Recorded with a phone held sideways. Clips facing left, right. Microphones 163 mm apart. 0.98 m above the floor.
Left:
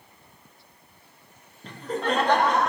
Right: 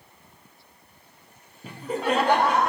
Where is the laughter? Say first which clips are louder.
Right 1 dB; 10° right (ahead or behind), 0.9 m.